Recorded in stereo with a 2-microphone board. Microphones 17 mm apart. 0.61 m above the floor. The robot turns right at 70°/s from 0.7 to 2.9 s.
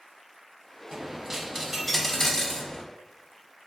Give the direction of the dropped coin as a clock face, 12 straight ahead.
3 o'clock.